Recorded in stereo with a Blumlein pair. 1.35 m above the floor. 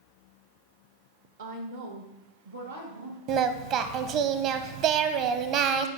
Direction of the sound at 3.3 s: 40° right.